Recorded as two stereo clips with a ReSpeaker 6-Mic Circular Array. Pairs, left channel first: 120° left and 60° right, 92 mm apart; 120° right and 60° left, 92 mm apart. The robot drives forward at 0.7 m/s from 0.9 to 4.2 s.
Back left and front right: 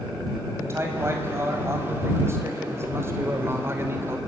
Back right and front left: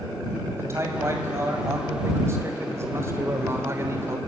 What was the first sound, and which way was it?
A man speaking, straight ahead.